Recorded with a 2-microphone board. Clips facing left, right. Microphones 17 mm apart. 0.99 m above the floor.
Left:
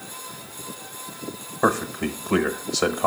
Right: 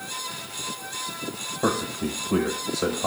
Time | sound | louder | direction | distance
1.6 | a man speaking | left 4 dB | 60° left (ahead or behind) | 0.9 m